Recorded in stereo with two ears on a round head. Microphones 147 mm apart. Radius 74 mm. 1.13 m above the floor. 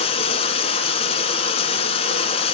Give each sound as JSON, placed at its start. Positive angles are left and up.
{"t": 0.0, "sound": "running water", "side_deg": 35, "distance_m": 1.3}